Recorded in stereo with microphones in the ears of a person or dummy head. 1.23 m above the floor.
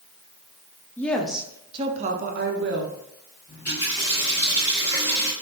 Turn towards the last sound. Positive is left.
turn(degrees=15)  # may be behind; listen again after turning